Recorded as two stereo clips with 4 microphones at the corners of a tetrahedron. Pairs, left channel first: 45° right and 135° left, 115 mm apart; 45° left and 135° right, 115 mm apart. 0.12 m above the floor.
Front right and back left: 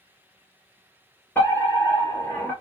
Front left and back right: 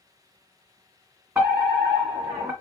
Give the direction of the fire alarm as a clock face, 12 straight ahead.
3 o'clock.